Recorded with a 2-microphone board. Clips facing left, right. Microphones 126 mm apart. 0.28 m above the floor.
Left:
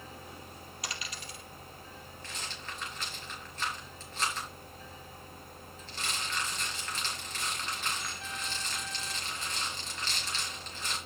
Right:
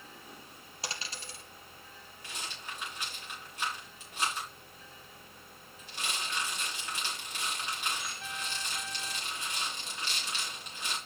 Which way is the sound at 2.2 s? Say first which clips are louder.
Right 1 dB; 15° right (ahead or behind).